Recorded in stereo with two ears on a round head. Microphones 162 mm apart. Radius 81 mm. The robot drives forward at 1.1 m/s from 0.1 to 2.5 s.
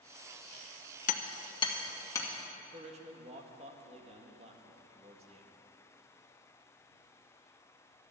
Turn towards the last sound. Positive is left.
turn(degrees=-35)  # may be behind; listen again after turning